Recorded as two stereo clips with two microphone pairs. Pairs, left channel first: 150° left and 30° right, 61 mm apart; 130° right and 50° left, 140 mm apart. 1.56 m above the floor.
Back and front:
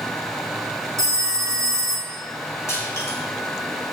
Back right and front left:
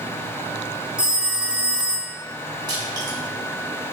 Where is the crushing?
110° left, 4.5 m.